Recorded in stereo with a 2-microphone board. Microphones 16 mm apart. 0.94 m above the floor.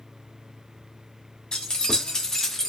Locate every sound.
1.5 s keys jangling: 55° left (ahead or behind), 1.0 m; by 2.7 s 15° left (ahead or behind), 0.8 m